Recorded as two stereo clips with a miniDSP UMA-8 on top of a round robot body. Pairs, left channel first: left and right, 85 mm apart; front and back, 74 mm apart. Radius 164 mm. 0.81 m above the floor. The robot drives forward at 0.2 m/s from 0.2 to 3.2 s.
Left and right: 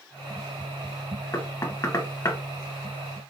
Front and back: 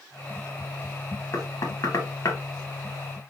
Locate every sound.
1.3 s knocking: 35° left, 1.2 m; by 2.4 s 40° left, 1.1 m